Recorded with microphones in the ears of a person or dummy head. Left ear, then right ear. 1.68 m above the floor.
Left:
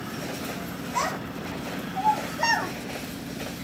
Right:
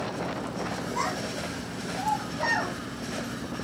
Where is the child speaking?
45° left (ahead or behind), 5 m; by 2.7 s 40° left (ahead or behind), 4 m.